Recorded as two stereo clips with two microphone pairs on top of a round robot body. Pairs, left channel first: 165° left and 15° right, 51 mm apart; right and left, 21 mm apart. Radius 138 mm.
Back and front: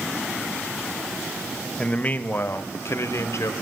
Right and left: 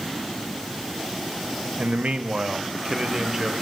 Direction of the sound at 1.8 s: 100° left.